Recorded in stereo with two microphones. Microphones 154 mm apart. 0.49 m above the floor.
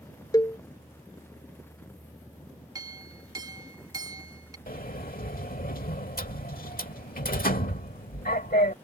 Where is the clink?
25° right (ahead or behind).